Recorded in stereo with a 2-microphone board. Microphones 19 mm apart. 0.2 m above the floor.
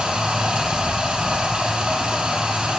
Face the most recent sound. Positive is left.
turn(degrees=-70)  # may be behind; listen again after turning